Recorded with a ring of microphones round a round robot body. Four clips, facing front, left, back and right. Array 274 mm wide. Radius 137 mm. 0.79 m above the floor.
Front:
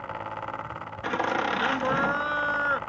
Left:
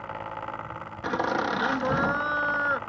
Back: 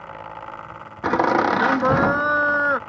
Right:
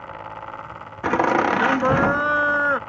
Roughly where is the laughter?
Behind right.